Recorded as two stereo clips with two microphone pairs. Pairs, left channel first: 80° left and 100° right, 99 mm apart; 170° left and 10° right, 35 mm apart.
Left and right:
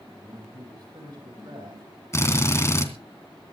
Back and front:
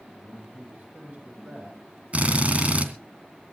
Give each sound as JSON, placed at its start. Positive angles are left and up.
{"t": 0.1, "sound": "a man speaking", "azimuth_deg": -50, "distance_m": 9.5}
{"t": 2.1, "sound": "a drill", "azimuth_deg": 25, "distance_m": 2.5}